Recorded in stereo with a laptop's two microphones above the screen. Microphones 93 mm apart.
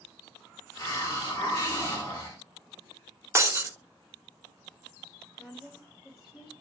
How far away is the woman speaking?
About 1.6 m.